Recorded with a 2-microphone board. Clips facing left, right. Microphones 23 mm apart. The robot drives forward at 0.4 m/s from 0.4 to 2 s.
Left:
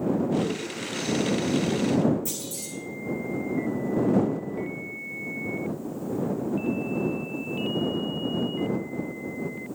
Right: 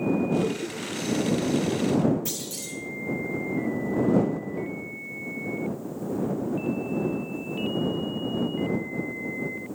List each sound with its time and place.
0.3 s laughter: 35° right (ahead or behind), 2.5 m; by 1.3 s 30° right (ahead or behind), 3 m
2.2 s a clunk: 60° right (ahead or behind), 3 m